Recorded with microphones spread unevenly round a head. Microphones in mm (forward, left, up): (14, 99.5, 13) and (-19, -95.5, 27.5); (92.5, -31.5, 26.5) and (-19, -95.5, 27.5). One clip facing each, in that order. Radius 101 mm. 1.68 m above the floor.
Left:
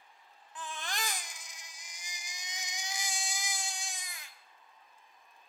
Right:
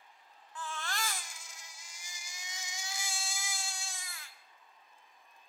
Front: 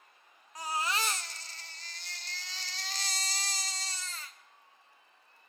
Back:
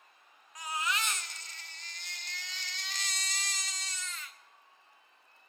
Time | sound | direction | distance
0.6 | a baby crying | 15° left | 0.6 m